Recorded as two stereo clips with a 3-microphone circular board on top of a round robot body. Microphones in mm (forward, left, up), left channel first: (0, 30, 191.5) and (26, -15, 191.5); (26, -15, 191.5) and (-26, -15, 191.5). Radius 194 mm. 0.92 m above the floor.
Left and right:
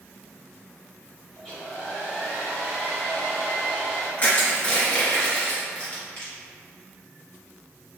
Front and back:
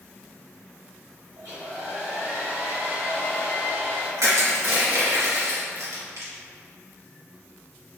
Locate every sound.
1.4 s a hair dryer: 165° right, 0.6 m
4.2 s crushing: 175° left, 1.5 m